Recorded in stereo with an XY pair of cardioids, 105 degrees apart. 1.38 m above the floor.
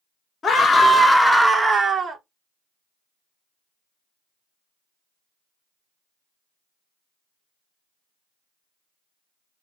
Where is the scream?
35° left, 0.7 m; by 2.2 s 50° right, 0.6 m.